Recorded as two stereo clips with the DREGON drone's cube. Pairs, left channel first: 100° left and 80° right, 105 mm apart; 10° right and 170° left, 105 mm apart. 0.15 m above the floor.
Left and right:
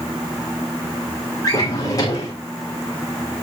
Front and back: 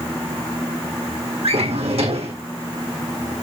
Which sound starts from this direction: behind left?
A drawer, at 1.4 s.